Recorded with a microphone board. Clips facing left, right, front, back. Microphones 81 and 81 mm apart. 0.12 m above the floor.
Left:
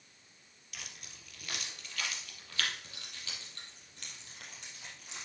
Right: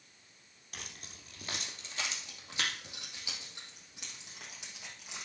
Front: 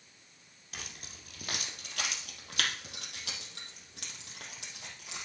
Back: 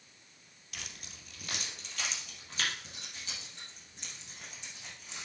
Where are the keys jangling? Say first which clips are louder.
Right 2 dB, front 1 dB; 45° right, 2.0 m; by 5.2 s 5° right, 3.5 m.